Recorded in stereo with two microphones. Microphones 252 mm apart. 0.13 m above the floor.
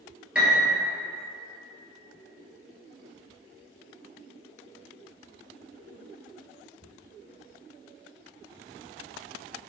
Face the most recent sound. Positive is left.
turn(degrees=-5)  # may be behind; listen again after turning